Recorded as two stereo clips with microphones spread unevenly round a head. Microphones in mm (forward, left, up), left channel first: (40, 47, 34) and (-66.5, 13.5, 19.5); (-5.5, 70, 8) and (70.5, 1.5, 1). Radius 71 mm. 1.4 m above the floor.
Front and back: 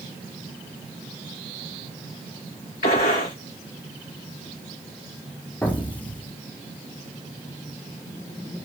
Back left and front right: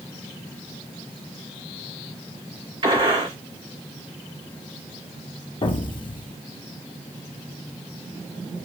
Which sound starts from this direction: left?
An explosion, at 5.6 s.